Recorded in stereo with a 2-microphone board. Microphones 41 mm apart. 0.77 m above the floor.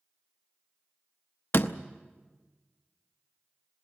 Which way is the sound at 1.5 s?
65° left (ahead or behind).